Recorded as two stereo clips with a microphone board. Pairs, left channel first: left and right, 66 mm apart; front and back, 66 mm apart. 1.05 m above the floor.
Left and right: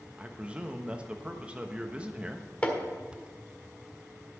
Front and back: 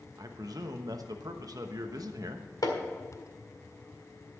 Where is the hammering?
20° left, 1.8 m.